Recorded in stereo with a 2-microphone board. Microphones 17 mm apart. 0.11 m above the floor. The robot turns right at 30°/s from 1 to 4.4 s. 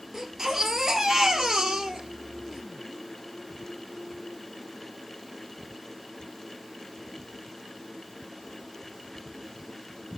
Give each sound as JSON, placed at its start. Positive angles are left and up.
{"t": 0.1, "sound": "a baby crying", "azimuth_deg": -145, "distance_m": 1.4}